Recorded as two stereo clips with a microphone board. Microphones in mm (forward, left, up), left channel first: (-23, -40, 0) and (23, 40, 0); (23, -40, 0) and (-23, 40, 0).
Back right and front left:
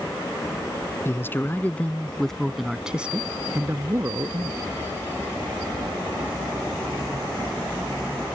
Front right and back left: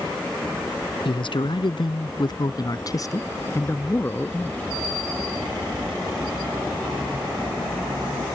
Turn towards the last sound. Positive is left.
turn(degrees=15)